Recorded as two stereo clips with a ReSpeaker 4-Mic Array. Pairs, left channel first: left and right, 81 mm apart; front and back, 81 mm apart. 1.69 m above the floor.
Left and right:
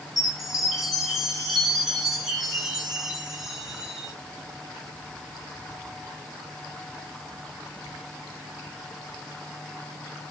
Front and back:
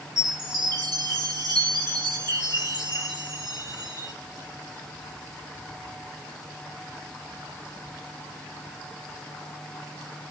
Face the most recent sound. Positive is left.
turn(degrees=-175)